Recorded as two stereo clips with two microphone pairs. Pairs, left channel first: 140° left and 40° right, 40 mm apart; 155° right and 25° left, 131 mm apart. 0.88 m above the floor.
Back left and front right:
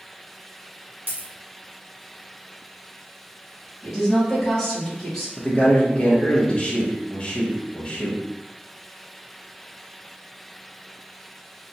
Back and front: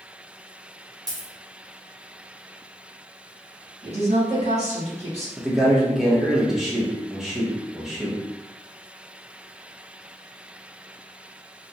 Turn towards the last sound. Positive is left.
turn(degrees=110)